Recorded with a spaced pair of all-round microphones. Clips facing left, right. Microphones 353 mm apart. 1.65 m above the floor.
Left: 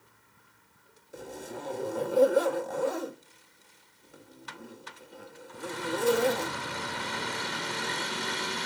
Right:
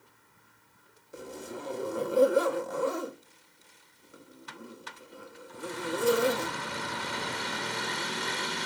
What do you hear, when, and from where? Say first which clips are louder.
1.1 s a zipper: even; 5° right (ahead or behind), 1.6 m